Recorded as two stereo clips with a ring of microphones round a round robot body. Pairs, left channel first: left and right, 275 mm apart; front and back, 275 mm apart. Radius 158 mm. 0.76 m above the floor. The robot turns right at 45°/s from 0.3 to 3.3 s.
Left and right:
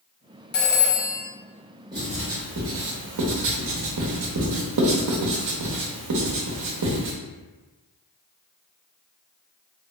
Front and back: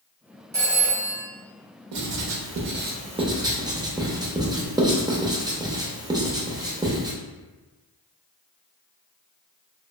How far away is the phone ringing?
About 0.7 m.